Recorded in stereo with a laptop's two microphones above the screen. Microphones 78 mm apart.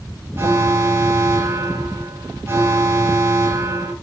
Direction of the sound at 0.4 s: 35° right (ahead or behind).